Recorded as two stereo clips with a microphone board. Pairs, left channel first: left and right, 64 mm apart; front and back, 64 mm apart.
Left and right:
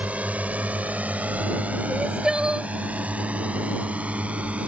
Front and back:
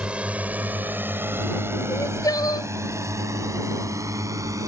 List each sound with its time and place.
0.0 s a drone: 130° right; by 4.7 s 160° right
1.9 s crying: 15° right